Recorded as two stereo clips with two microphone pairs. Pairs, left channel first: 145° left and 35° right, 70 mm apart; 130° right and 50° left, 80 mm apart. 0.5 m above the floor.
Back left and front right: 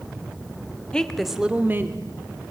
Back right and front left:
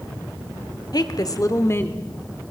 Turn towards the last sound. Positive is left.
turn(degrees=-65)